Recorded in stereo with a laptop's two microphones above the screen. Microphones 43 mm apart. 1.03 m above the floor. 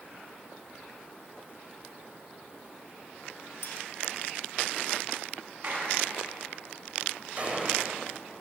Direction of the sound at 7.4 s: 30° right (ahead or behind).